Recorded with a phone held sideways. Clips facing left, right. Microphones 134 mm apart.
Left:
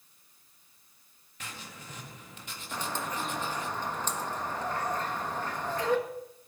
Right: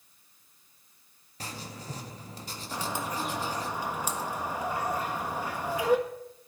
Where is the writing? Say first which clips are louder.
Right 5 dB; 35° right (ahead or behind), 1.7 m.